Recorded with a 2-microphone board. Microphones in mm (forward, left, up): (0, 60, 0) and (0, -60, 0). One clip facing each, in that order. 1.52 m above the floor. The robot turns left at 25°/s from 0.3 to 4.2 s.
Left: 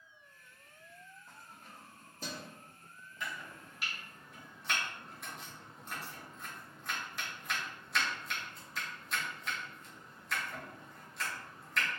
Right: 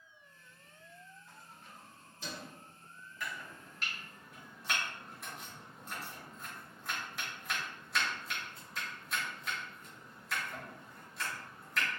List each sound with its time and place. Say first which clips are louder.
1.3 s keys jangling: left 1 dB; 40° left (ahead or behind), 0.6 m
3.2 s chopping: even; 20° left (ahead or behind), 0.9 m; by 11.9 s centre (ahead or behind), 0.9 m